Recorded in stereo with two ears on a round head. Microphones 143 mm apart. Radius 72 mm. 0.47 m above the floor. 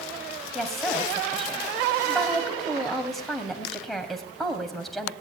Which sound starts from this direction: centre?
A woman speaking, at 0.6 s.